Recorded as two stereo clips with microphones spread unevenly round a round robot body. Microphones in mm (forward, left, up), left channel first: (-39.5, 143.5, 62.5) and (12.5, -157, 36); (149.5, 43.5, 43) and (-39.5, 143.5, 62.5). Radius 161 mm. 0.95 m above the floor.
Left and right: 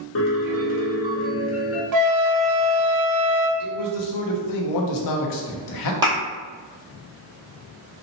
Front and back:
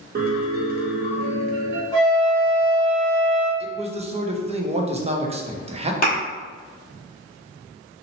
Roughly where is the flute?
Right.